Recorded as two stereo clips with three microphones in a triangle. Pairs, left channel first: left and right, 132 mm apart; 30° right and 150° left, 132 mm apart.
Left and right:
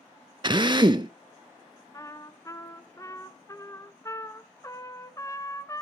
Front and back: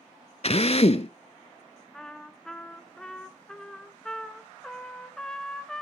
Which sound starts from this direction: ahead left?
A trumpet, at 1.9 s.